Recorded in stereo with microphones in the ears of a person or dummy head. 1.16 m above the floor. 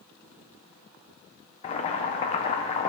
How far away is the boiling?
About 0.7 m.